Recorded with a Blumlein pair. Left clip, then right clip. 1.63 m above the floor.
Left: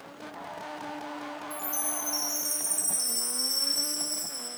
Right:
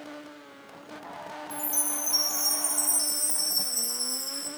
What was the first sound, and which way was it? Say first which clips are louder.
A chime: right 2 dB; 15° right.